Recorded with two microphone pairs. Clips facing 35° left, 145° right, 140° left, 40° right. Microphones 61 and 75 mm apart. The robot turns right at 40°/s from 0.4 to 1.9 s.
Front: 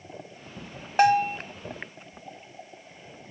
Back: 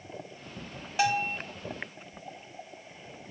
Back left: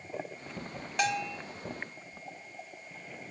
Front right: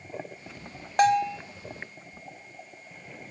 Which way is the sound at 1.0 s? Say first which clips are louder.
Front 7 dB, front right 10 dB; straight ahead.